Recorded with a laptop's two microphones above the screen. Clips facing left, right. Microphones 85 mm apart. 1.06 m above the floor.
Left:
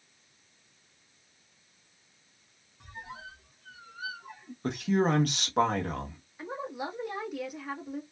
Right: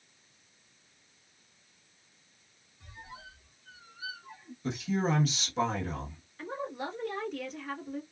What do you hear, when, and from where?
2.8 s a squeak: 60° left (ahead or behind), 0.9 m
4.6 s a man speaking: 55° left (ahead or behind), 1.1 m
6.4 s a woman speaking: 10° left (ahead or behind), 1.5 m